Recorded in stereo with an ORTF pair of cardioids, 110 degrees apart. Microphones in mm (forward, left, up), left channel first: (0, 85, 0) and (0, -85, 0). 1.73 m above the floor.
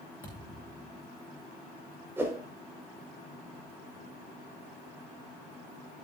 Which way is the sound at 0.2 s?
10° left.